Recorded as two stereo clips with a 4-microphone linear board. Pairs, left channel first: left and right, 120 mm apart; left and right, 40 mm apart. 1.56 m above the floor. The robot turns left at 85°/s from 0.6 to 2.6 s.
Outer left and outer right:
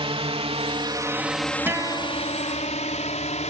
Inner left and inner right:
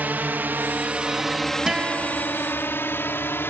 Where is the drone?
55° right (ahead or behind); by 3.5 s 85° left.